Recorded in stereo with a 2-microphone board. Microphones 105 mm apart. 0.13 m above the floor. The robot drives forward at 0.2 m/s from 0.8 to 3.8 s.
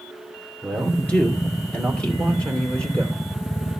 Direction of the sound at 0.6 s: 10° left (ahead or behind).